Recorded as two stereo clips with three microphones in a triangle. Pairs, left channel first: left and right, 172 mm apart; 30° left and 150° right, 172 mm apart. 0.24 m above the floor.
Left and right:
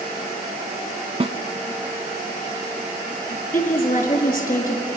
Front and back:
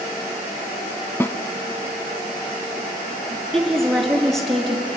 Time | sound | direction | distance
1.2 | a snare drum | 45° right | 0.7 m
3.5 | a woman speaking | 120° left | 4 m